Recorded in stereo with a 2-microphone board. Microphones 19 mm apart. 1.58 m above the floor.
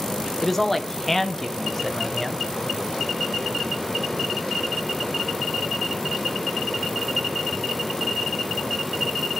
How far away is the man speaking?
About 1.2 m.